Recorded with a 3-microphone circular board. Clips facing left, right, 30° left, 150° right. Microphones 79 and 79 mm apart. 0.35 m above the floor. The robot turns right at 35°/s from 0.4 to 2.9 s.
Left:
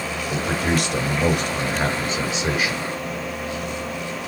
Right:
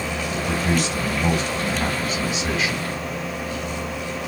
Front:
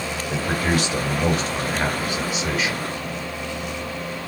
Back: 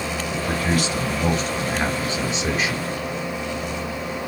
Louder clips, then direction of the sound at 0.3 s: Left 1 dB, front 1 dB; 85° left.